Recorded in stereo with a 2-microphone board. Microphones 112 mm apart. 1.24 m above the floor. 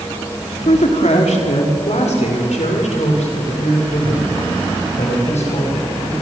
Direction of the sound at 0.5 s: 85° left.